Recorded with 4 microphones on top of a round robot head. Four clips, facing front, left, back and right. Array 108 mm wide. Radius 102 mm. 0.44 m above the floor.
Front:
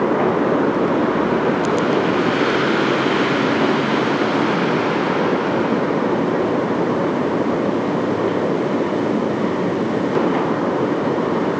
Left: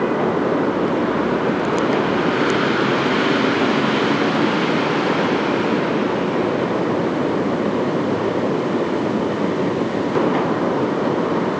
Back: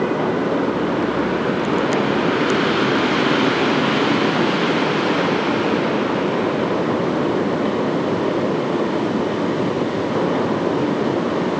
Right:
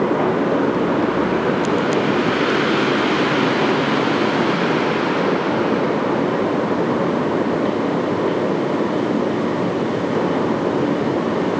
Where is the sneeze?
No sneeze in this recording.